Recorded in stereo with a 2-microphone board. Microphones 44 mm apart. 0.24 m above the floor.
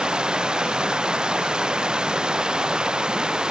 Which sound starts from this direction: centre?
Running water, at 0.0 s.